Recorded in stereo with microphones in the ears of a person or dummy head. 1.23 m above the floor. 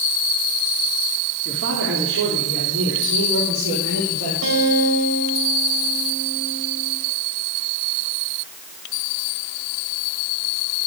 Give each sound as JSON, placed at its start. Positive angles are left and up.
{"t": 1.4, "sound": "a man speaking", "side_deg": -65, "distance_m": 3.0}
{"t": 4.4, "sound": "a guitar", "side_deg": -80, "distance_m": 5.0}